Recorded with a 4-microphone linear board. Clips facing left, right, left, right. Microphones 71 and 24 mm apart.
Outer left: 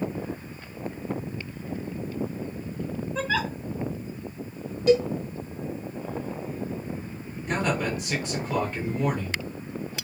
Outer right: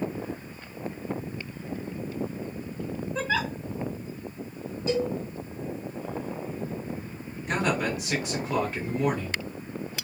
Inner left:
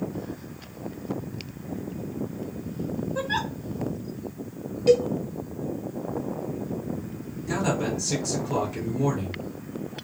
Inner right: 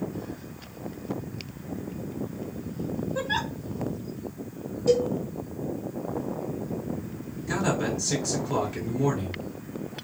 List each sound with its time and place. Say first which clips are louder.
3.1 s a giggle: outer left 1 dB, inner left 1 dB; 5° right (ahead or behind), 0.6 m
4.9 s a cowbell: outer left 7 dB, inner left 3 dB; 80° left, 1.3 m
7.5 s a man speaking: even, even; 5° right (ahead or behind), 1.6 m